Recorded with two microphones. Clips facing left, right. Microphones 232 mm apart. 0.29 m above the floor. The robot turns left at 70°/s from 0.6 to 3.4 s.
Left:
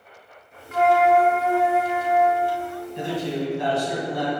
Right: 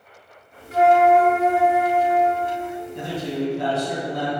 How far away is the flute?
About 0.7 m.